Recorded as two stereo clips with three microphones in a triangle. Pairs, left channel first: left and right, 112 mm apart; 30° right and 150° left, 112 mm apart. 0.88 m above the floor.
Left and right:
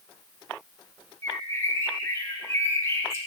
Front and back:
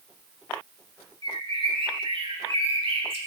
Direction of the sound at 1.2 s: 150° left.